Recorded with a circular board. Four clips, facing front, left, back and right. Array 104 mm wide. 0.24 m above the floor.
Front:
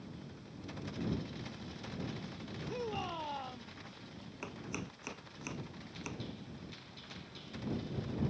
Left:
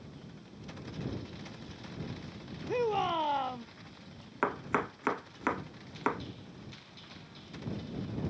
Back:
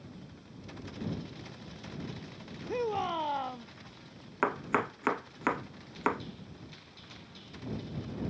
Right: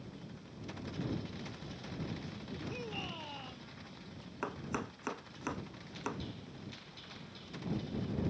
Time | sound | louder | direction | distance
2.7 | a shout | left 18 dB, back 8 dB | 120° left | ?
4.4 | chopping | left 8 dB, back 15 dB | 150° left | ?